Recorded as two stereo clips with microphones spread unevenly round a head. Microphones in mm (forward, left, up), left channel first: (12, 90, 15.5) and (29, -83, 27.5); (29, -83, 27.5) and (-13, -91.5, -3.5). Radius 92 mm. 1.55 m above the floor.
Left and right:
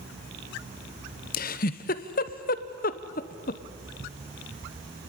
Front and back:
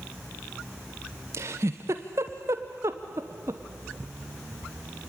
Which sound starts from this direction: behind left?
A giggle, at 1.3 s.